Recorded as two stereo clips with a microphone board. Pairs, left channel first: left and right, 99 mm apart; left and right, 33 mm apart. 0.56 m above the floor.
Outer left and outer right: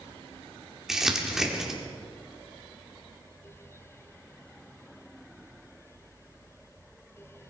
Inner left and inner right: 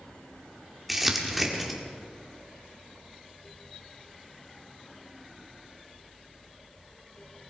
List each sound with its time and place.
0.9 s crumpling: 5° right (ahead or behind), 1.8 m